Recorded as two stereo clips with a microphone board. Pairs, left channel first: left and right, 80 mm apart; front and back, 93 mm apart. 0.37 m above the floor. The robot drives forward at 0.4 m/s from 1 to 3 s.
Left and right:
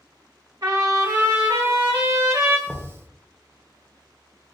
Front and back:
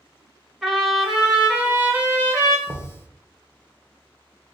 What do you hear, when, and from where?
0.6 s a trumpet: 90° right, 1.0 m; by 2.6 s 130° right, 1.1 m
2.7 s knocking: 165° right, 0.7 m; by 2.9 s 170° right, 0.7 m